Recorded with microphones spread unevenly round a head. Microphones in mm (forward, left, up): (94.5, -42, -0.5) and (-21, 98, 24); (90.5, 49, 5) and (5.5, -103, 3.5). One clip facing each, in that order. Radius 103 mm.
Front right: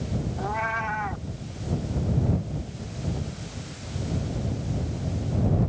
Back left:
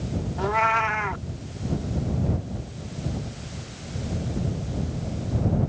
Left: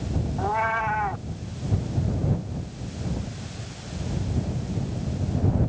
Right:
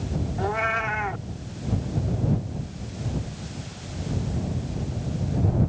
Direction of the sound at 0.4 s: 170° left.